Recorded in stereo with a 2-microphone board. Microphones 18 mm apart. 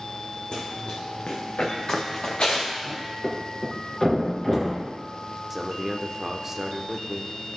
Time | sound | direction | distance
0.5 | running footsteps | 70° left (ahead or behind) | 1.5 m
3.2 | a thud | 30° left (ahead or behind) | 2.5 m
5.5 | a man speaking | 15° right (ahead or behind) | 0.9 m